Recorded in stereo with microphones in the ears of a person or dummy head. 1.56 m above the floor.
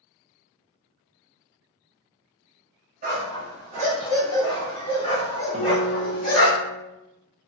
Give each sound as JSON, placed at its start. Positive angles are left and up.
{"t": 3.0, "sound": "a dog barking", "side_deg": -40, "distance_m": 1.6}
{"t": 5.5, "sound": "a guitar", "side_deg": -30, "distance_m": 0.9}